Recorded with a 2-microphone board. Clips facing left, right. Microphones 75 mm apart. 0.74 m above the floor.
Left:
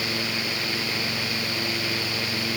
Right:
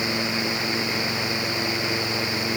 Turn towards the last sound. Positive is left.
No sound to turn to.